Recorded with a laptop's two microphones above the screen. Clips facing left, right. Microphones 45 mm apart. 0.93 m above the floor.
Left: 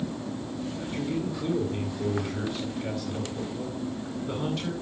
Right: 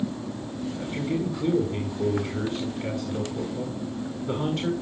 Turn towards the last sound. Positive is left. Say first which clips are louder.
# right 3 dB
turn(degrees=-40)  # may be behind; listen again after turning